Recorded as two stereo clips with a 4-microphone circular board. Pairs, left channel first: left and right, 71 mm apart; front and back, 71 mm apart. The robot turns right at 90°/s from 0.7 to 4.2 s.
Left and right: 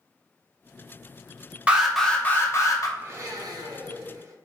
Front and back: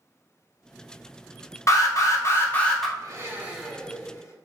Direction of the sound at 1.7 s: 20° right.